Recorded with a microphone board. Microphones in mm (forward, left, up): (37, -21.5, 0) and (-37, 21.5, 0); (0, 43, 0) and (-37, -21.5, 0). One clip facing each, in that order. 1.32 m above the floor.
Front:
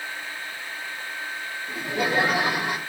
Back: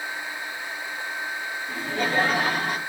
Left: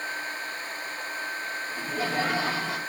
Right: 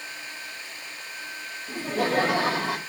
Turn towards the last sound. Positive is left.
turn(degrees=-105)